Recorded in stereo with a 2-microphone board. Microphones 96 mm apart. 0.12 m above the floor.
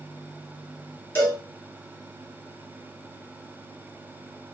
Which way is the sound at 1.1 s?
25° left (ahead or behind).